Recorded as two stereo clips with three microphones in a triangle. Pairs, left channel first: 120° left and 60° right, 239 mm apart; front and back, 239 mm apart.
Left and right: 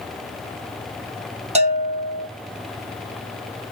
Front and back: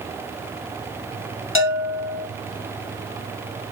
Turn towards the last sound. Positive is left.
turn(degrees=0)